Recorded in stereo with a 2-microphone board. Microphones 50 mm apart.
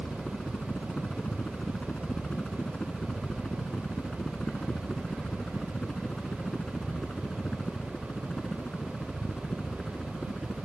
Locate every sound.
0.0 s a helicopter: 25° left (ahead or behind); by 10.7 s 15° left (ahead or behind)